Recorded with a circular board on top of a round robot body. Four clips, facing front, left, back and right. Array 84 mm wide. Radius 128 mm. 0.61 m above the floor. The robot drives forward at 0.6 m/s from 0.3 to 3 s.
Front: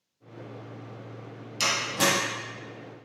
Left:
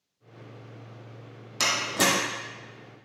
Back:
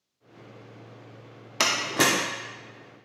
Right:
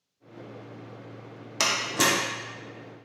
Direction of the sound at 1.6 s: 165° right.